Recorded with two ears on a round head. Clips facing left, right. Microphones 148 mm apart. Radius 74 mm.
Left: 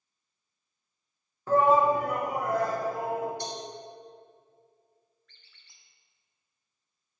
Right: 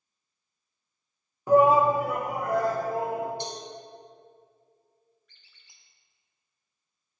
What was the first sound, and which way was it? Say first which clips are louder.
A shout: right 3 dB; 10° right (ahead or behind).